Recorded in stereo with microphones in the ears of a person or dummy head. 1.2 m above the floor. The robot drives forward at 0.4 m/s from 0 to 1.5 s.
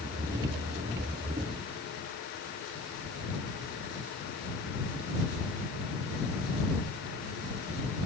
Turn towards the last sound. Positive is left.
No sound to turn to.